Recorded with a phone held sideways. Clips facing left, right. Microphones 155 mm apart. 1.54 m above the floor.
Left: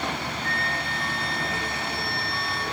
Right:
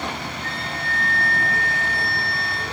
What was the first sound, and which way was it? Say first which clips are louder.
A flute: even; 55° right (ahead or behind).